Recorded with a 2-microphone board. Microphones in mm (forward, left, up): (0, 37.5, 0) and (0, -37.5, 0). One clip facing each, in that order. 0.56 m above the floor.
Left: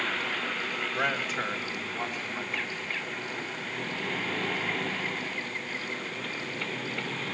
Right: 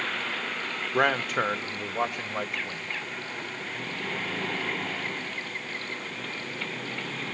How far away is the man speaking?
About 1.3 m.